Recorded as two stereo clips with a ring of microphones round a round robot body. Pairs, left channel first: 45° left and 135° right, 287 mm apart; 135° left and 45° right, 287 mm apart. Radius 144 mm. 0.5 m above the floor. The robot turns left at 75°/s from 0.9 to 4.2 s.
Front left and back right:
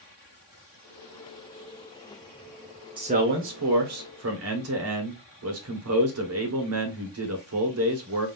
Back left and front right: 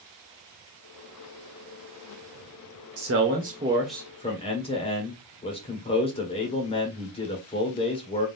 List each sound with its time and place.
3.0 s a man speaking: 65° right, 1.6 m; by 8.3 s 160° right, 1.6 m